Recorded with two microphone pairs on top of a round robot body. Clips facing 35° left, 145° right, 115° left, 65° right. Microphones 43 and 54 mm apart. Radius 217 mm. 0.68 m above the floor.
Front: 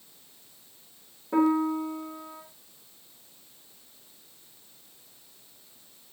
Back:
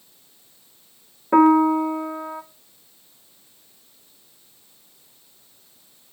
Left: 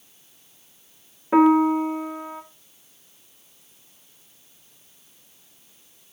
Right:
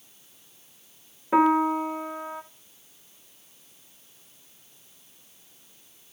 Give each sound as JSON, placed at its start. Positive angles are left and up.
{"t": 1.3, "sound": "a piano", "azimuth_deg": -155, "distance_m": 1.1}